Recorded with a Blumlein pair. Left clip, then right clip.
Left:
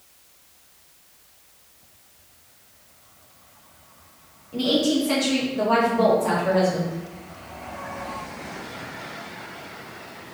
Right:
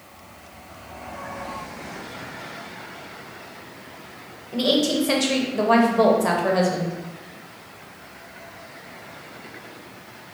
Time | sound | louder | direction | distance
4.5 | a woman speaking | right 1 dB | 65° right | 0.7 m